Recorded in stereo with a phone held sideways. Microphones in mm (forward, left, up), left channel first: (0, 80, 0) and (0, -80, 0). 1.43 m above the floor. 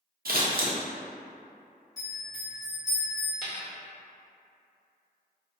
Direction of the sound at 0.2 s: 70° right (ahead or behind).